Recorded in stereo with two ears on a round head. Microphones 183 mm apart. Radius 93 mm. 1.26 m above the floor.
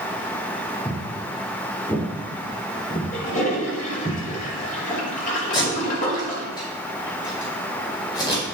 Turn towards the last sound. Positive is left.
turn(degrees=20)  # may be behind; listen again after turning